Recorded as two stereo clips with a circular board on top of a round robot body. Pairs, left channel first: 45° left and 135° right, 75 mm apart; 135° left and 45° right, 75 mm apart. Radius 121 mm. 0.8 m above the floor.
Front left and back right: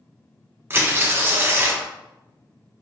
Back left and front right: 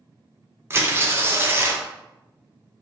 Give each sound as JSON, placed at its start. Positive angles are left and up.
{"t": 0.7, "sound": "tearing paper", "azimuth_deg": -90, "distance_m": 1.0}